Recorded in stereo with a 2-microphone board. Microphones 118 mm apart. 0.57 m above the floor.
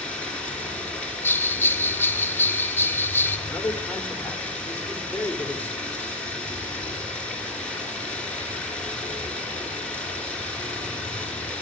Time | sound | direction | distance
0.0 | running water | 10° left (ahead or behind) | 3 m
1.2 | a bell | 20° left (ahead or behind) | 0.5 m
3.5 | a man speaking | 15° left (ahead or behind) | 1.8 m